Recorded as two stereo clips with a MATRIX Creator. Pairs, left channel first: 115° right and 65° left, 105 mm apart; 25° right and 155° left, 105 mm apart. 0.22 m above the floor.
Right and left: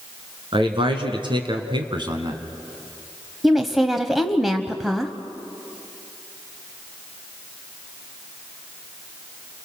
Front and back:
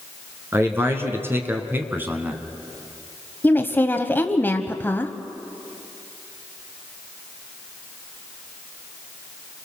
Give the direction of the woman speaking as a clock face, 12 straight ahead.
1 o'clock.